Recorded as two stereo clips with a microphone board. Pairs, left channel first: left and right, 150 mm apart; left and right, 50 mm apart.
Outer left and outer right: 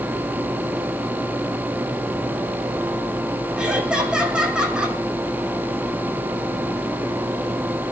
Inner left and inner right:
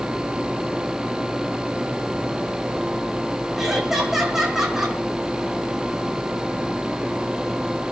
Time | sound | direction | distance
3.6 | laughter | 5° right (ahead or behind) | 7 m